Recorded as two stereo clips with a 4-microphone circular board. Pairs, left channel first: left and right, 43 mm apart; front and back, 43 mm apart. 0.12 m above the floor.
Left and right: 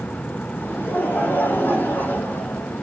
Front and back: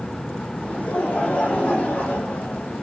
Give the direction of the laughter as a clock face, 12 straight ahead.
10 o'clock.